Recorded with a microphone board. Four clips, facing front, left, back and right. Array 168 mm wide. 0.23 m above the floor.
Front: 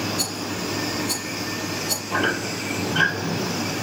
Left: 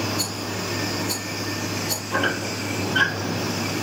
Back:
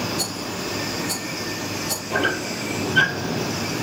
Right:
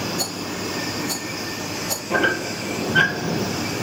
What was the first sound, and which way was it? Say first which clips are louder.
A rattle: right 1 dB, even; 115° right.